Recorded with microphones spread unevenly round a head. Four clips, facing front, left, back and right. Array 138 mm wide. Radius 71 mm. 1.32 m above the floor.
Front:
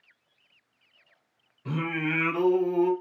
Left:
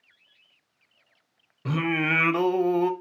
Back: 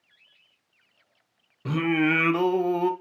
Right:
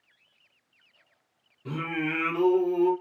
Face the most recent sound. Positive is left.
turn(degrees=135)